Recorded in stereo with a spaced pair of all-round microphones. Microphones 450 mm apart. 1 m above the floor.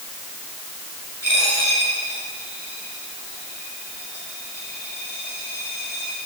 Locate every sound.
1.2 s a dropped coin: 30° left (ahead or behind), 7.5 m